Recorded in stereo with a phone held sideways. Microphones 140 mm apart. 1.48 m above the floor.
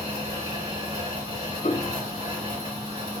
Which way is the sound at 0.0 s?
40° right (ahead or behind).